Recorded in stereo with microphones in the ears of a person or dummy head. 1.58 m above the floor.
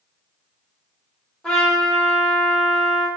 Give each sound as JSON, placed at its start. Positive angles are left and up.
{"t": 1.4, "sound": "a trumpet", "side_deg": 5, "distance_m": 0.8}